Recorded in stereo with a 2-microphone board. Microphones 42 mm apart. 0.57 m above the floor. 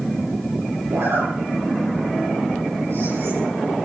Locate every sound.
0.9 s a zipper: 85° right, 8.5 m